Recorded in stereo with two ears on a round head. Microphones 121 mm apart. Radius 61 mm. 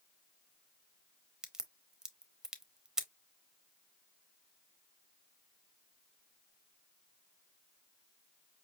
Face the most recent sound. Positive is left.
turn(degrees=-5)  # may be behind; listen again after turning